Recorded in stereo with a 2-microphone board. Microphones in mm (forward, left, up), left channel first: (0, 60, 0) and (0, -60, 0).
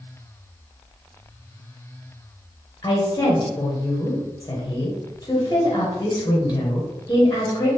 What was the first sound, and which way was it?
A woman speaking, 25° left (ahead or behind).